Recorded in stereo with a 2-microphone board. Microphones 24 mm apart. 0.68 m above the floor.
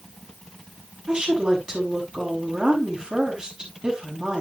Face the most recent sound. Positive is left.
turn(degrees=-30)  # may be behind; listen again after turning